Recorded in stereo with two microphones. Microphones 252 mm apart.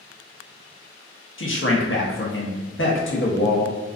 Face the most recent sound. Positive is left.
turn(degrees=55)  # may be behind; listen again after turning